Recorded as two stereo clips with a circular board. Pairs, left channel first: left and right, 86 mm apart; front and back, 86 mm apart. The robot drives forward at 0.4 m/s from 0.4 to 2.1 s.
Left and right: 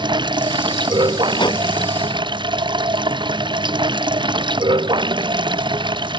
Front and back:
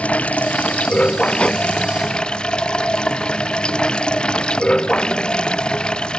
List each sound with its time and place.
0.0 s running water: 75° right; by 6.2 s 80° right
1.4 s breathing: 75° left; by 1.6 s 80° left